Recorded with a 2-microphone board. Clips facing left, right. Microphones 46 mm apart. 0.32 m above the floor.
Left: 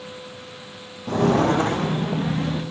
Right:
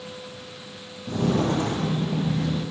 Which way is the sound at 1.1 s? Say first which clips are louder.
Left 5 dB; 60° left (ahead or behind).